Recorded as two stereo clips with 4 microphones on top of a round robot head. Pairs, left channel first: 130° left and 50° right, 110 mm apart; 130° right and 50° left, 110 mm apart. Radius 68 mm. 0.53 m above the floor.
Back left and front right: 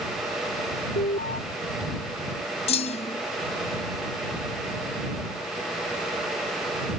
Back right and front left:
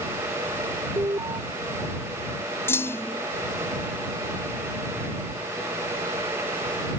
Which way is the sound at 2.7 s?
160° left.